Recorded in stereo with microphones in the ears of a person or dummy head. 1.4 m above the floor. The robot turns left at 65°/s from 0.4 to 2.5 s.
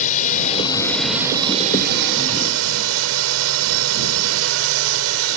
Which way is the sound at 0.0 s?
35° left.